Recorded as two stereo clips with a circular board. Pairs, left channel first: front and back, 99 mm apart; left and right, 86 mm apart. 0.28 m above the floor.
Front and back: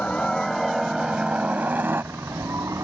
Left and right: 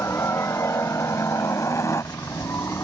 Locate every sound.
0.0 s a helicopter: 70° left; by 2.8 s 135° left